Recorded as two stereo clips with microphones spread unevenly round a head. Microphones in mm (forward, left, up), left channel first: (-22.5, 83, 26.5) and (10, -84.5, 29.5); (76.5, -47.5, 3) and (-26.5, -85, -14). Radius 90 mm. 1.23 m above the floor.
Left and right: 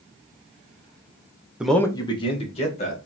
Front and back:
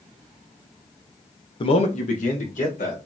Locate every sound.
1.6 s a man speaking: 5° left, 0.6 m; by 3.0 s 50° left, 2 m